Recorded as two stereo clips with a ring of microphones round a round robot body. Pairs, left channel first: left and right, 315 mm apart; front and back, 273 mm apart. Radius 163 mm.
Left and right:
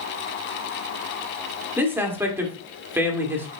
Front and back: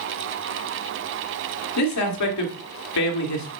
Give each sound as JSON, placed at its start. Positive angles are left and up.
{"t": 1.8, "sound": "a man speaking", "azimuth_deg": -10, "distance_m": 2.0}